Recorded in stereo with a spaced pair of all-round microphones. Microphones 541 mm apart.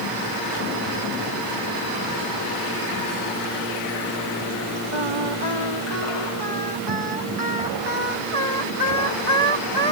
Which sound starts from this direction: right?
Singing, at 4.9 s.